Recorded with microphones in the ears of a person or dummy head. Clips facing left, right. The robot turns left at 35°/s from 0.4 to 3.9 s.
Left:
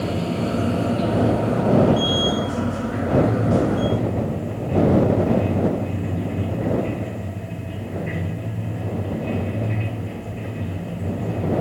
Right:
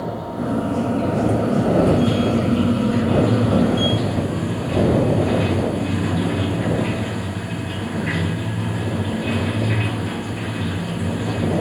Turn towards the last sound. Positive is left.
turn(degrees=-90)